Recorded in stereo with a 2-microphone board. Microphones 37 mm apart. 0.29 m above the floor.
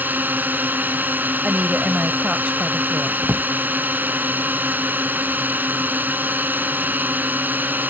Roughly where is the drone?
Right.